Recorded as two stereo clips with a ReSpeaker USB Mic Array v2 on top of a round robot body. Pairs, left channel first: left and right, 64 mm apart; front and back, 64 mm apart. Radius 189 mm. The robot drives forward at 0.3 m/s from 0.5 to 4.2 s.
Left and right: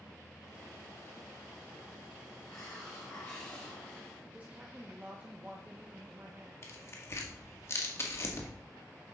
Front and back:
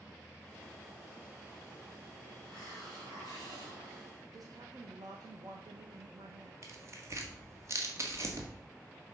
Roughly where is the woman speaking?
Behind right.